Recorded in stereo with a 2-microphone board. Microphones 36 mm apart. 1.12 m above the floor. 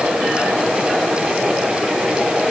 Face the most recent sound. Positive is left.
No sound to turn to.